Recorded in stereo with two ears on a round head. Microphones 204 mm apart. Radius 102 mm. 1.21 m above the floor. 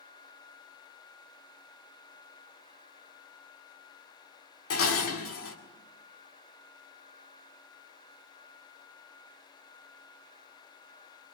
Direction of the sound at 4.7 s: 70° left (ahead or behind).